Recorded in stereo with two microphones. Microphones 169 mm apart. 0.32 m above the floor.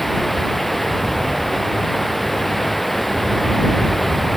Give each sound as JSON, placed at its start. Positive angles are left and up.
{"t": 0.0, "sound": "running water", "side_deg": 0}